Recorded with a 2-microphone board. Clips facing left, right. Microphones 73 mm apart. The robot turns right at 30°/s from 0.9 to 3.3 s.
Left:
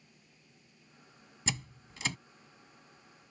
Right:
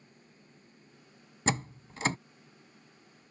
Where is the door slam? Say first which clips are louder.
Right 8 dB; 45° right (ahead or behind); by 2.2 s 40° right (ahead or behind).